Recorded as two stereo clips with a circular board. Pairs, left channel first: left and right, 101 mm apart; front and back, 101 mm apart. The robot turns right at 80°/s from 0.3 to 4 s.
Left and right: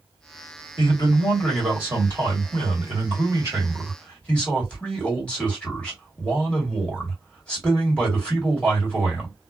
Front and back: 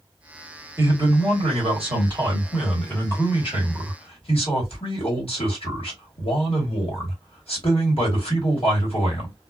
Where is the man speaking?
115° left, 1.8 m; by 9.3 s 10° left, 1.8 m.